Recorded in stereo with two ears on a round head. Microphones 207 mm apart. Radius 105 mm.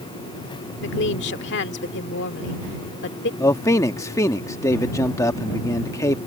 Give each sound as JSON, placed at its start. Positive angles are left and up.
{"t": 0.8, "sound": "a woman speaking", "side_deg": 50}
{"t": 3.4, "sound": "a man speaking", "side_deg": 15}